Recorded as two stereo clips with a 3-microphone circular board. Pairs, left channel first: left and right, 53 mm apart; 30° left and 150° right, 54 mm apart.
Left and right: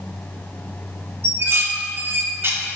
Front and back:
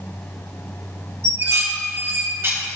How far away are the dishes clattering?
About 1.0 m.